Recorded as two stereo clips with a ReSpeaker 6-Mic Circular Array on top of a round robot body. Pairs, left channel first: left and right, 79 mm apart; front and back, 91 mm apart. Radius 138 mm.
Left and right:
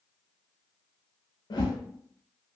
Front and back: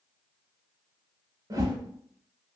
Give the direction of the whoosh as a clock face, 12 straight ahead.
8 o'clock.